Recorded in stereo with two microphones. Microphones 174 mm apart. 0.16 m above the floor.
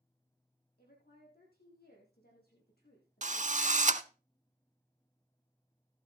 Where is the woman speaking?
60° left (ahead or behind), 7.5 m.